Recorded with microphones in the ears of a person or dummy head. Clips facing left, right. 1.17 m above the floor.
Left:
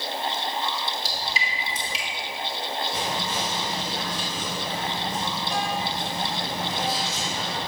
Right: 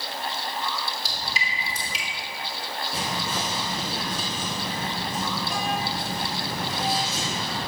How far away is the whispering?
About 2 m.